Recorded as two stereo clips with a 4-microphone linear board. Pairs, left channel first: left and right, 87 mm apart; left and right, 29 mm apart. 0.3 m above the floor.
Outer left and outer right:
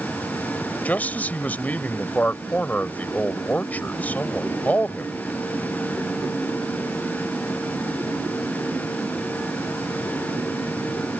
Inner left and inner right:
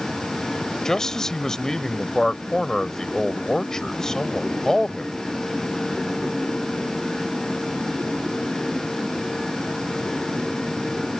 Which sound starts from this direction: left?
A man speaking, at 0.8 s.